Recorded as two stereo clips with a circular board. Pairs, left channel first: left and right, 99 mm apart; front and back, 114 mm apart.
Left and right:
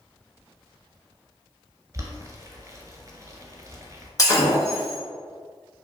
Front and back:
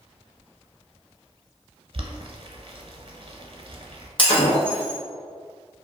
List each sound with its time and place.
1.9 s boiling: 145° right, 0.5 m
4.2 s breaking glass: 40° left, 1.4 m